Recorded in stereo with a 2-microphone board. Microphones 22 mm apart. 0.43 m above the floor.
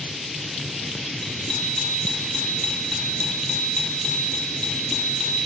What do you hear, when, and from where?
1.2 s a bicycle bell: 45° left (ahead or behind), 8 m